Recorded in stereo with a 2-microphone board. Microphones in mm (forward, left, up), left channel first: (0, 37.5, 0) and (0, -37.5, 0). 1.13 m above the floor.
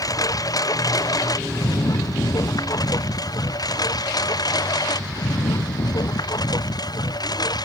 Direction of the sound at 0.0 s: 55° left (ahead or behind).